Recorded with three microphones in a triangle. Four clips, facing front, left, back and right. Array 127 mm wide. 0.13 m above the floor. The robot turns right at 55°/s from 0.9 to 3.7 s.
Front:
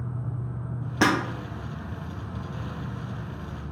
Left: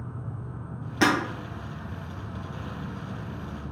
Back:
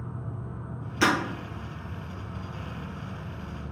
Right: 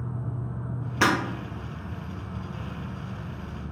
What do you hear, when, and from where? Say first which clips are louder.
0.0 s an insect: right 4 dB, front 3 dB; 70° right, 1.2 m; by 3.7 s 85° left, 1.2 m
1.0 s breaking glass: left 1 dB, front 2 dB; 5° right, 1.8 m; by 1.1 s straight ahead, 1.8 m